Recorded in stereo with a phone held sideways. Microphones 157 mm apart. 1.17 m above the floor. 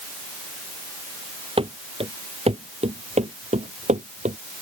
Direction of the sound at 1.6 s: 40° right (ahead or behind).